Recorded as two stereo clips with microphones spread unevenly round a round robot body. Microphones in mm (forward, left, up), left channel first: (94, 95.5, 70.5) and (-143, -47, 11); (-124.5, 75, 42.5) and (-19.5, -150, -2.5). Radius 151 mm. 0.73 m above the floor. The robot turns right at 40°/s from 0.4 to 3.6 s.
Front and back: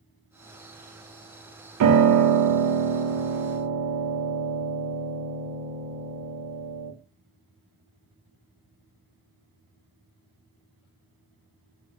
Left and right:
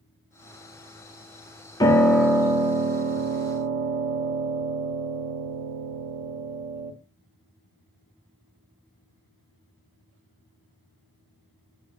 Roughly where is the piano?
Behind.